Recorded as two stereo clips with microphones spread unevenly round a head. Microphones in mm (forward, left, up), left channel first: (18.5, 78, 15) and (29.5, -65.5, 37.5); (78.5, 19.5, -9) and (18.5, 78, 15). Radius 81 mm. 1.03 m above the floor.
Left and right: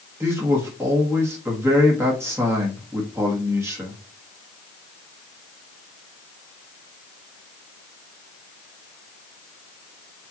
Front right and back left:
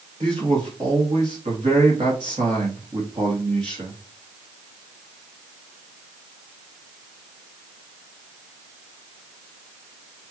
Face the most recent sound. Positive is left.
turn(degrees=-165)